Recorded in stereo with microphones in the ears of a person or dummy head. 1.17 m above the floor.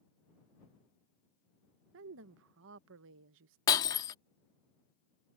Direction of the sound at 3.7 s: 20° left (ahead or behind).